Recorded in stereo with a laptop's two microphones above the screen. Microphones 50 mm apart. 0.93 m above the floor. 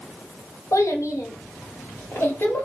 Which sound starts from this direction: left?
A child speaking, at 0.7 s.